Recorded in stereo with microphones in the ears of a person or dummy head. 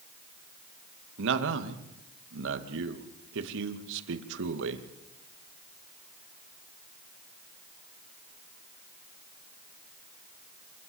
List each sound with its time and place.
1.2 s a man speaking: 70° right (ahead or behind), 2 m